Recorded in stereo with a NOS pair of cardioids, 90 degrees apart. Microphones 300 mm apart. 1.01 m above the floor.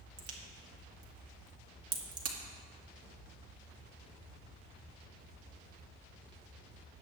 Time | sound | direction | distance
0.2 | a crack | 55° right | 2.5 m